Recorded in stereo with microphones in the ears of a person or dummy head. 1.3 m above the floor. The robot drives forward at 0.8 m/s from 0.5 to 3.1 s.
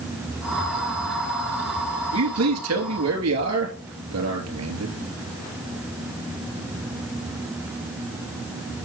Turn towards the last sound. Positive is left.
turn(degrees=-70)  # may be behind; listen again after turning